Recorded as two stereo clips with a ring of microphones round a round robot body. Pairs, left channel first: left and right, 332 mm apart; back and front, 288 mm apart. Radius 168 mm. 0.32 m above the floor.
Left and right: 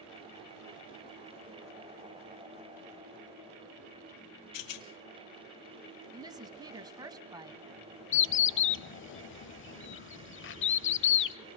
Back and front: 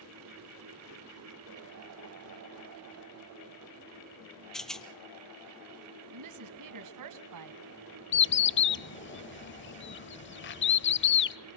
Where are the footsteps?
No footsteps in this recording.